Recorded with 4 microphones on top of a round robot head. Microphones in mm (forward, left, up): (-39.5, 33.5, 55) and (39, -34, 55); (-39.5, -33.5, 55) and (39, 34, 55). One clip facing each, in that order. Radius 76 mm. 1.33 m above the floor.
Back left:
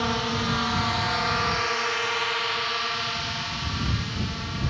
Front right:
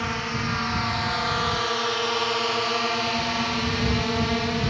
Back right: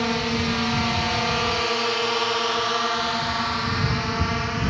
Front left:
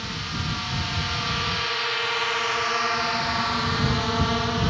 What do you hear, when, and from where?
0.0 s a drone: 150° right; by 4.7 s 30° right